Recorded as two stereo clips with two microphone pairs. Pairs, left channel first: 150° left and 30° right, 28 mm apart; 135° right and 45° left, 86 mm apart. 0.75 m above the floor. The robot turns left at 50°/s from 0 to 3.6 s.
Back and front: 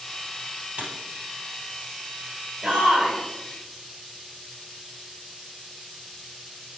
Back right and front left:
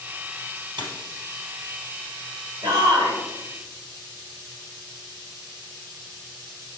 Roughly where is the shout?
Ahead.